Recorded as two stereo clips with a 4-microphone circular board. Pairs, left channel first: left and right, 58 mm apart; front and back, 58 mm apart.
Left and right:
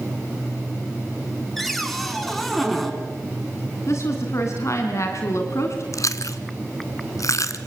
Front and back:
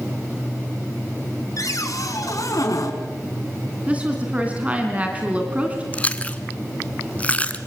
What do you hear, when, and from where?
1.6 s a cupboard door: straight ahead, 3 m
3.9 s a woman speaking: 115° left, 3 m
5.9 s chewing: 70° left, 1.4 m